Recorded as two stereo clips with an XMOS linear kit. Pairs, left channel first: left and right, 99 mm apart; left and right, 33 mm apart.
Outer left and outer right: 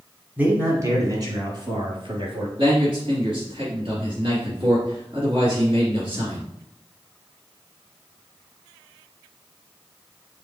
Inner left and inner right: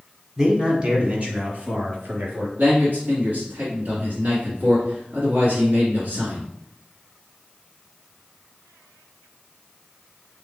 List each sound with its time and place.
0.4 s a man speaking: 15° right (ahead or behind), 1.2 m; by 2.5 s 60° right (ahead or behind), 2.5 m
2.6 s a man speaking: 50° right (ahead or behind), 2 m